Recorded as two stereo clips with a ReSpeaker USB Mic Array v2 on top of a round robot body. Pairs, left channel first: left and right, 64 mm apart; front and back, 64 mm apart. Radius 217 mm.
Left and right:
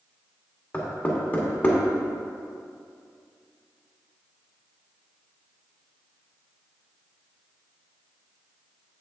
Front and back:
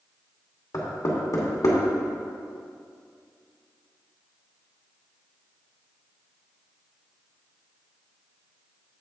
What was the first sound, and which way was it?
Knocking, 25° left.